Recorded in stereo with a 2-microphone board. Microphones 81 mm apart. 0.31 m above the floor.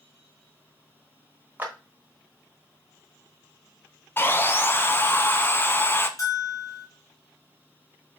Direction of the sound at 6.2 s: 45° left (ahead or behind).